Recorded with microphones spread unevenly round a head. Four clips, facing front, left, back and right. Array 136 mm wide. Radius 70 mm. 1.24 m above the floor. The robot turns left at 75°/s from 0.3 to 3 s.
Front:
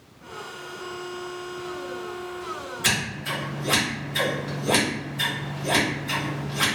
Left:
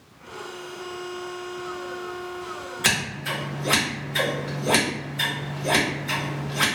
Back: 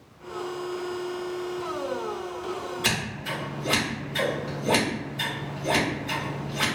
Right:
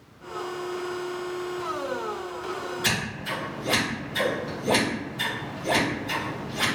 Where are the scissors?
115° left, 1.5 m; by 6.7 s 100° left, 1.5 m.